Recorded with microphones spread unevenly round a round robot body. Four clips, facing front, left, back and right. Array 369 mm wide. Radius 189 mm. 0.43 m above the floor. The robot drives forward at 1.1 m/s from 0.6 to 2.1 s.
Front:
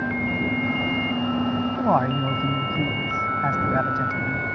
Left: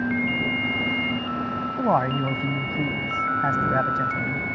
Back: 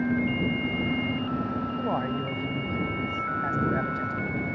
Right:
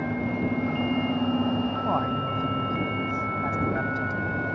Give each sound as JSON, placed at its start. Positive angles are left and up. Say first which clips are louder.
{"t": 1.8, "sound": "a man speaking", "louder": "left 4 dB, front 9 dB", "azimuth_deg": 40}